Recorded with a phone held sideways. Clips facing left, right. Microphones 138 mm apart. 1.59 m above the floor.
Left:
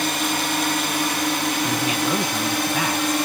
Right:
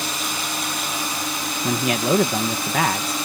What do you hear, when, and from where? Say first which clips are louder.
0.0 s a drone: left 5 dB; 65° left (ahead or behind)
1.6 s a man speaking: right 6 dB; 70° right (ahead or behind)